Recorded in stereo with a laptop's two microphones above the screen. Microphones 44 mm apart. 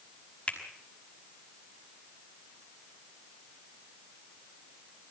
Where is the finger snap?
25° left (ahead or behind), 5 m.